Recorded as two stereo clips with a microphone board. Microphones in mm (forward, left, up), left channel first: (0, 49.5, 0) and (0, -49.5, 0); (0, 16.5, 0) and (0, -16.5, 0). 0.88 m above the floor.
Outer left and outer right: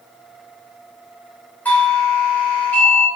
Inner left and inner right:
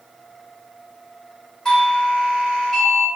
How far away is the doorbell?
About 0.9 m.